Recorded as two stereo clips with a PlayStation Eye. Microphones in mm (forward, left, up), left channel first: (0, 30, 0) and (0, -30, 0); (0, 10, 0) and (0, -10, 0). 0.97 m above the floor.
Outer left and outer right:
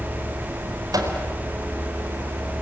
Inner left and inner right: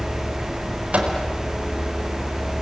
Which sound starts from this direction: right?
A microwave, at 0.9 s.